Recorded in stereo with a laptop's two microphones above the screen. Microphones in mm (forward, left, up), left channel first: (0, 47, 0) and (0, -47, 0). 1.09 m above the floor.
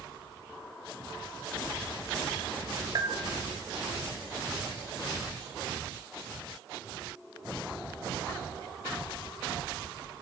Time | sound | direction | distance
3.0 | a bell | 50° right (ahead or behind) | 1.0 m